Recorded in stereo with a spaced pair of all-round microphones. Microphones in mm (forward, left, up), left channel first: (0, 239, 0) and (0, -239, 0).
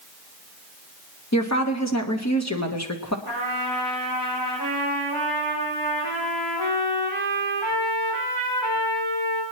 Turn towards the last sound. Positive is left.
turn(degrees=85)